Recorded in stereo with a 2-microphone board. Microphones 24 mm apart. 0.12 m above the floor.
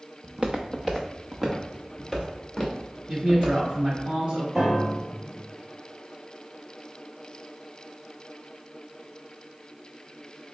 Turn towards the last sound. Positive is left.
turn(degrees=-15)  # may be behind; listen again after turning